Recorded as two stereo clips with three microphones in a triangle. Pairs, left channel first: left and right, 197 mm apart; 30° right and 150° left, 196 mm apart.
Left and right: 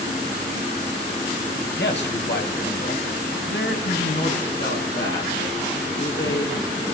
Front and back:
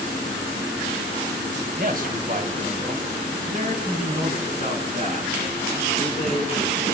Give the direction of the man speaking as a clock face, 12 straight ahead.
8 o'clock.